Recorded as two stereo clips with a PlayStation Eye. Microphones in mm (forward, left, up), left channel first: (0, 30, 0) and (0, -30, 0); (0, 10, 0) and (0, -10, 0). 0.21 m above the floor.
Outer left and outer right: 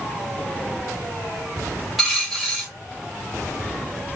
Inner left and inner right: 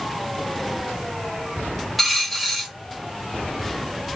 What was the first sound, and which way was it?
A dropped coin, 5° right (ahead or behind).